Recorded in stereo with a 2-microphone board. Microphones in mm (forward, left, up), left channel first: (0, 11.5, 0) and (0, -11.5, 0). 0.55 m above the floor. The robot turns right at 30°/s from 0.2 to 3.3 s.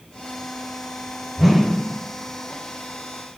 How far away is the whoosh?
About 0.9 m.